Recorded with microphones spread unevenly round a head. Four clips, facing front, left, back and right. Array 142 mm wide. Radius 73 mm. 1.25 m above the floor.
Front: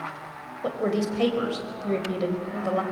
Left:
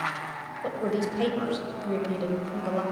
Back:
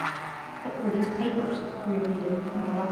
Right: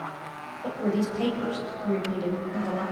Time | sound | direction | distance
0.6 | a woman speaking | 10° left | 5.5 m